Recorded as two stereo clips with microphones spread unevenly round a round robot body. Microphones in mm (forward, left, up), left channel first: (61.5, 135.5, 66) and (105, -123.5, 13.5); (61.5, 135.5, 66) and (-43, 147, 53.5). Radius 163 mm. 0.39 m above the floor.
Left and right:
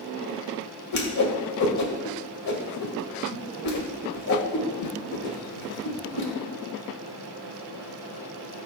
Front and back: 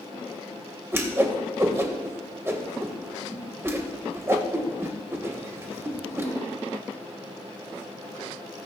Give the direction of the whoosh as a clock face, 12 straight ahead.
8 o'clock.